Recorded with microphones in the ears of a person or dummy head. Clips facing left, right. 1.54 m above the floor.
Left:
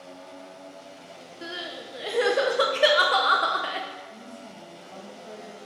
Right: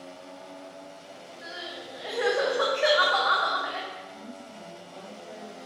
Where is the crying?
35° left (ahead or behind), 0.6 m.